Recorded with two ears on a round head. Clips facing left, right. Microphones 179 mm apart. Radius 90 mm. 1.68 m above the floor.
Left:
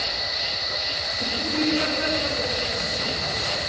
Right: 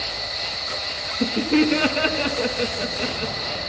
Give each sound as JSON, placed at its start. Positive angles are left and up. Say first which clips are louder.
{"t": 0.0, "sound": "an insect", "louder": "even", "side_deg": 10, "distance_m": 3.5}
{"t": 1.1, "sound": "laughter", "louder": "right 10 dB", "side_deg": -80, "distance_m": 3.0}